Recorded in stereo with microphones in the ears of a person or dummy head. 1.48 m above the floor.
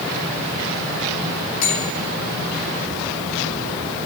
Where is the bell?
65° left (ahead or behind), 4 m.